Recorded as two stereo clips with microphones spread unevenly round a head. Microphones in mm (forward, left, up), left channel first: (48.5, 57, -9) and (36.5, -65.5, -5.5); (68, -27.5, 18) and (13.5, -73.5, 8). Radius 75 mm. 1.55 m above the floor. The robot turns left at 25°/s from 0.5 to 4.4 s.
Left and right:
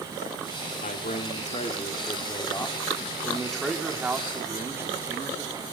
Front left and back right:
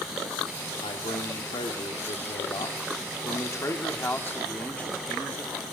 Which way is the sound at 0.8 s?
65° left.